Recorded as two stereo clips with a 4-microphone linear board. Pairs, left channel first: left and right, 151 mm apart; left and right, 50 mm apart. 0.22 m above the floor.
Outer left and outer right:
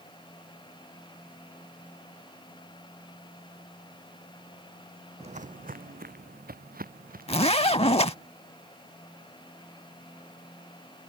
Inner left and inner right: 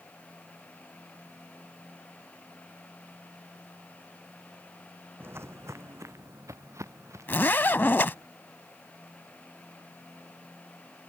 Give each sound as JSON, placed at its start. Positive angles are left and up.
{"t": 5.2, "sound": "footsteps", "side_deg": -45}
{"t": 7.3, "sound": "a zipper", "side_deg": 40}